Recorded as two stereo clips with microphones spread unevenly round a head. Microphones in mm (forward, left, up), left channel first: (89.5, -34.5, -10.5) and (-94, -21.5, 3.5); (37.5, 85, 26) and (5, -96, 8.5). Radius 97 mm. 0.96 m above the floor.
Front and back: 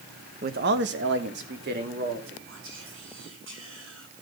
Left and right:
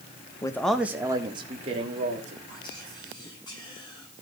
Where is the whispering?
150° left, 8 m.